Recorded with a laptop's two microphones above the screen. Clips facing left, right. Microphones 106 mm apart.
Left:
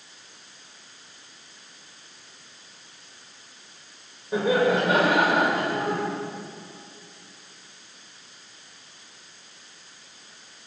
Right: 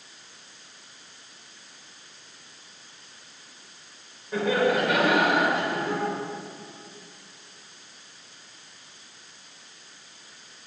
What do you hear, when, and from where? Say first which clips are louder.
4.3 s laughter: left 2 dB; 20° left (ahead or behind), 4.5 m; by 6.0 s 55° left (ahead or behind), 4 m